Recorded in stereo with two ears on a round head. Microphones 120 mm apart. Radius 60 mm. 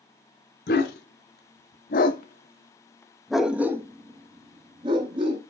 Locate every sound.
0.7 s a dog barking: 80° left, 1.6 m; by 5.4 s 40° right (ahead or behind), 2.0 m